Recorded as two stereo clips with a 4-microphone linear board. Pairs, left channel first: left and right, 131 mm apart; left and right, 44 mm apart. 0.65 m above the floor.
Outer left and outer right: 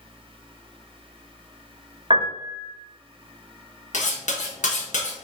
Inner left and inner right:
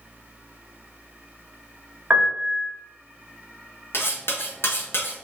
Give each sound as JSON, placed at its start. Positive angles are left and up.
{"t": 2.1, "sound": "a piano", "side_deg": -40, "distance_m": 1.7}
{"t": 3.9, "sound": "cutlery clinking", "side_deg": 65, "distance_m": 1.0}